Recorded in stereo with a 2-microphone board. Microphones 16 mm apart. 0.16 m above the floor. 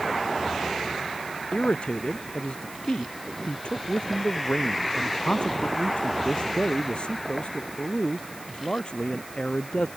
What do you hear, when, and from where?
1.5 s a man speaking: 80° left